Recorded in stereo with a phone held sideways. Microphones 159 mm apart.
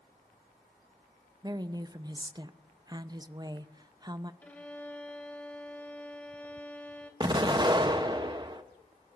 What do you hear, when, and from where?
1.4 s a woman speaking: 25° right (ahead or behind), 0.5 m
4.4 s a violin: 10° left (ahead or behind), 1.4 m
7.2 s an explosion: 30° right (ahead or behind), 0.7 m